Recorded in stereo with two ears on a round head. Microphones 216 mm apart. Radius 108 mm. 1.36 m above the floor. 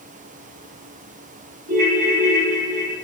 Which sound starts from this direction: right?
A ringtone, at 1.7 s.